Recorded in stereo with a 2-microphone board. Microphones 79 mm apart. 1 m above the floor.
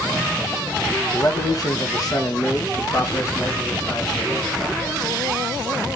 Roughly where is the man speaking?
Left.